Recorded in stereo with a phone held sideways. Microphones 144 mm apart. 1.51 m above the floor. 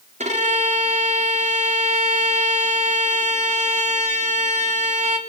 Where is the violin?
50° right (ahead or behind), 3.5 m.